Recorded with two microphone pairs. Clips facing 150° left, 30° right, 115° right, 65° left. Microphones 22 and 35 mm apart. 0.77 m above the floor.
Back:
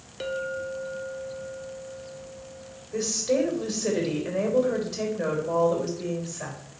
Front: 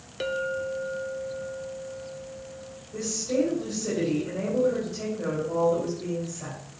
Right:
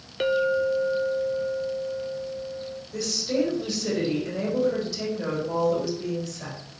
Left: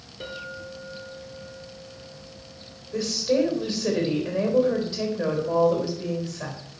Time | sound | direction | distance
0.2 | a clink | 105° right | 1.0 m
2.9 | a woman speaking | 130° left | 3.5 m